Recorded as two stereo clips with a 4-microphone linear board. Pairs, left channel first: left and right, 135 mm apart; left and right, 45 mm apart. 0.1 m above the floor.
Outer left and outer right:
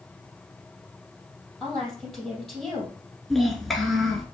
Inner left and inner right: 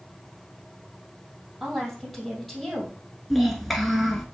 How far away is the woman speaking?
About 3 m.